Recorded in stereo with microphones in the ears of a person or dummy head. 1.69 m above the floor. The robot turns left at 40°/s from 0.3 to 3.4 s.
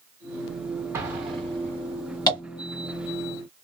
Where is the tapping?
20° left (ahead or behind), 1.3 m; by 2.4 s 25° left (ahead or behind), 1.3 m.